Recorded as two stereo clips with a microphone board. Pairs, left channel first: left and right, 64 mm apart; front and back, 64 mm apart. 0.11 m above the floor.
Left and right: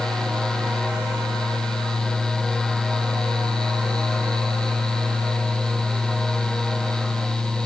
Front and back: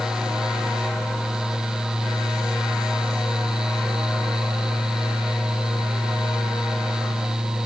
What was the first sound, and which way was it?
Only background noise.